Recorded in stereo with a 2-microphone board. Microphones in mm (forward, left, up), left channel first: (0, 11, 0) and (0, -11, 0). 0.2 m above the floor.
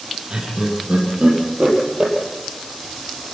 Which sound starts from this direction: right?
Laughter, at 0.3 s.